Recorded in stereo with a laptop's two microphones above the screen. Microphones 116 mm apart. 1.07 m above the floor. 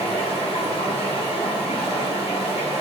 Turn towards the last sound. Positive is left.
turn(degrees=70)  # may be behind; listen again after turning